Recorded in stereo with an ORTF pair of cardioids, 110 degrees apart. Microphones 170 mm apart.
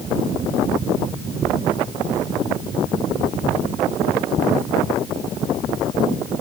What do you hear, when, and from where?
Only background noise.